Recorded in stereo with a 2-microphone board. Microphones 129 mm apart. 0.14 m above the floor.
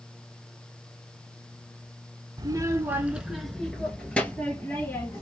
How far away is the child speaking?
About 0.8 m.